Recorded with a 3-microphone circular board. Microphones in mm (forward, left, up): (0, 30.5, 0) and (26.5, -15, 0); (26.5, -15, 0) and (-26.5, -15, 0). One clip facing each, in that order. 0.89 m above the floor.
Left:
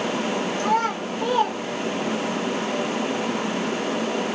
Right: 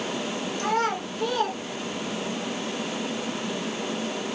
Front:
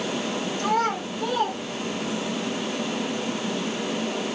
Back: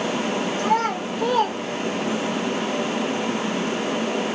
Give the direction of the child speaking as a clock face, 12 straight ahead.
5 o'clock.